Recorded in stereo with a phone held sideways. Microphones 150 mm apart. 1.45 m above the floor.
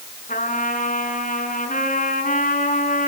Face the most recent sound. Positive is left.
turn(degrees=65)  # may be behind; listen again after turning